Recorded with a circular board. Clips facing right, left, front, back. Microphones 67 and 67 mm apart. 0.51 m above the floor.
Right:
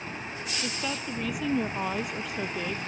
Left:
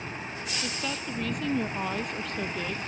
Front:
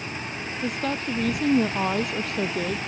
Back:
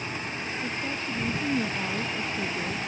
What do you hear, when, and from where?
0.6 s a woman speaking: 5° right